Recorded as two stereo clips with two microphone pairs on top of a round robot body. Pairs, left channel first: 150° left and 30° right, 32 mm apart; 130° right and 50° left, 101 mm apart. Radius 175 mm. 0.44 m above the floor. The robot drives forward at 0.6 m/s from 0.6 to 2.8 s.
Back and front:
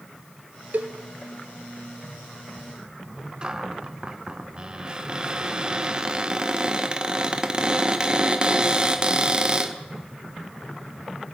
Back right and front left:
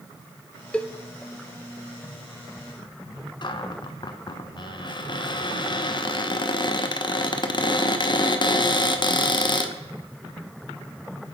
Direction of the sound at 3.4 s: 90° right.